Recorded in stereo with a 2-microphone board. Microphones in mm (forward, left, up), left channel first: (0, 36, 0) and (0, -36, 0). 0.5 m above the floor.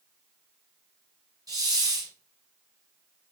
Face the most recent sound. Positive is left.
turn(degrees=-60)  # may be behind; listen again after turning